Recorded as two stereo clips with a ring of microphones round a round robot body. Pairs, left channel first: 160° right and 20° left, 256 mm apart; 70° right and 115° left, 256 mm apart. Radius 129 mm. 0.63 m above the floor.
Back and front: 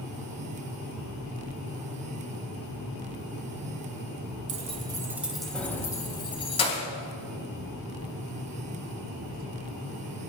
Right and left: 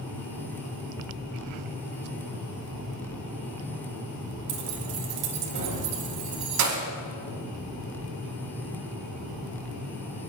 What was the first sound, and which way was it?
Keys jangling, 85° left.